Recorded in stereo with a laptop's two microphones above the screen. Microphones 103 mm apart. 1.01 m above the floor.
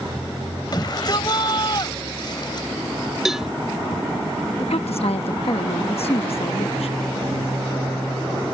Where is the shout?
45° left (ahead or behind).